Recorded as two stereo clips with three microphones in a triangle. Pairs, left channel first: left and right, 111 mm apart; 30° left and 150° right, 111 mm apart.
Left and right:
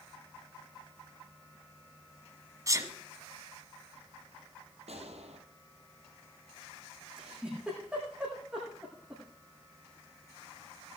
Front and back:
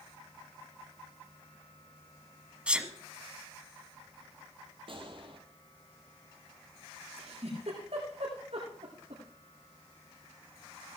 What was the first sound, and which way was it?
A sneeze, 80° right.